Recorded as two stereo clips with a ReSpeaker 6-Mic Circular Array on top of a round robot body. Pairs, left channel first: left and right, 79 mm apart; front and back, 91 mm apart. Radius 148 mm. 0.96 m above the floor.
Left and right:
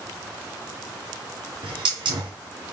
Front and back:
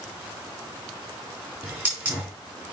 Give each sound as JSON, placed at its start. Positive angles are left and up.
{"t": 1.6, "sound": "a hiss", "azimuth_deg": -110, "distance_m": 3.5}